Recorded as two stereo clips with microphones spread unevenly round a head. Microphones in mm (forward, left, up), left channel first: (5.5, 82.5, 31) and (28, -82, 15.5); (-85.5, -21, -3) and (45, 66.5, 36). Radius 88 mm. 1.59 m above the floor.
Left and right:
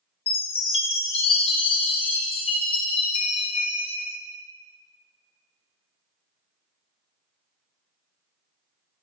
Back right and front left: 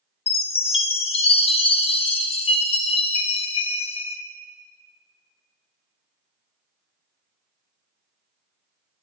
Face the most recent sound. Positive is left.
turn(degrees=155)